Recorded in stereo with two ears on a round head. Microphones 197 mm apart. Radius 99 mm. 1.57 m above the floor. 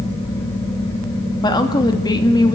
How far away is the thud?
I don't hear a thud.